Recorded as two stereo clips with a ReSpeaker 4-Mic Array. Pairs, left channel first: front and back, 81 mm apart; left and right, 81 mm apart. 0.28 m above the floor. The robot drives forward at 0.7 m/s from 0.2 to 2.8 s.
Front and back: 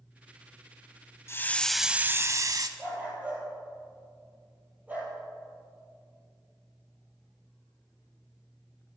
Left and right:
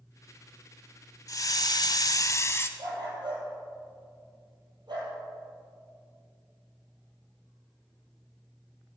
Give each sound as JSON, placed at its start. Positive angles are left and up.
{"t": 1.3, "sound": "a hiss", "azimuth_deg": 50, "distance_m": 0.6}
{"t": 2.8, "sound": "a dog barking", "azimuth_deg": -110, "distance_m": 4.0}